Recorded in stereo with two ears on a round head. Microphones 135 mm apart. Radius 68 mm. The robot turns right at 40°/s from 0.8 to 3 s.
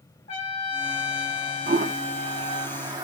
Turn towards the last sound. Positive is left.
turn(degrees=-25)  # may be behind; listen again after turning